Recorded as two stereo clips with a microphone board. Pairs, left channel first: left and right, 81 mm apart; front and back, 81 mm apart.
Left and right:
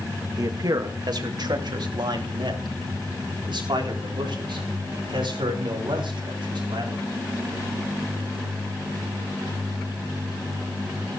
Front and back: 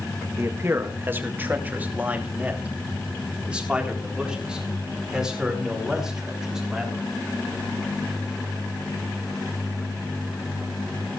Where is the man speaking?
125° right, 1.7 m; by 7.0 s 95° right, 6 m.